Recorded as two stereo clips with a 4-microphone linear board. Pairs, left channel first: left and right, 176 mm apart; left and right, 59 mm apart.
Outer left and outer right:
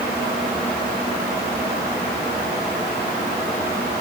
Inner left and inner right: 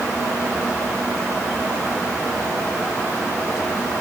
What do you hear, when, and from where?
Only background noise.